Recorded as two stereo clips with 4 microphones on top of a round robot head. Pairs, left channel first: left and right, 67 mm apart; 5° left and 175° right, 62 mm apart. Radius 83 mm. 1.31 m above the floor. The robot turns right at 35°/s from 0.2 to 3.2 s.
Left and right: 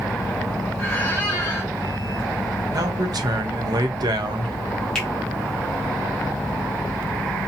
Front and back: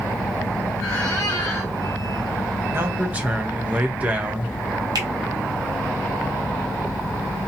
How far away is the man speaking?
About 0.5 m.